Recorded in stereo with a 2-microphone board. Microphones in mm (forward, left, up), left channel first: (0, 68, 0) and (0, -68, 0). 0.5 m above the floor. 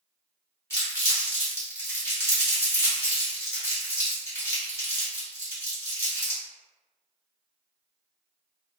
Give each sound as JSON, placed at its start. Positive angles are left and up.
{"t": 0.7, "sound": "crumpling", "side_deg": 20, "distance_m": 1.6}